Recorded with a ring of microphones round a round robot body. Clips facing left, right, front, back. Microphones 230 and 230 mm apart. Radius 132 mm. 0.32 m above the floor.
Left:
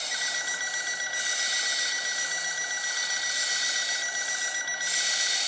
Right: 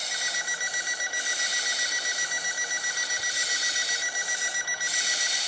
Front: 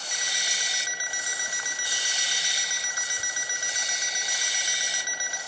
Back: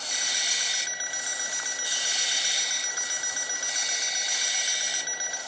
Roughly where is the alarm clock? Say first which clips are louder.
Right 1 dB, even; ahead right.